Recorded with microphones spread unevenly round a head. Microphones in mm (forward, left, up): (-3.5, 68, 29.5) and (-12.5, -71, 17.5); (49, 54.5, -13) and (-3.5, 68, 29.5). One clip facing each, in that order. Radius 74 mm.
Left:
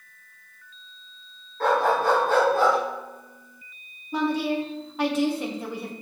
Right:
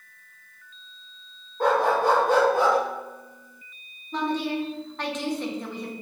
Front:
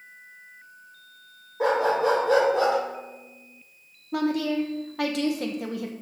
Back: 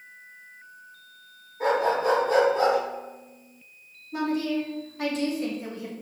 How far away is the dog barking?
About 2.5 m.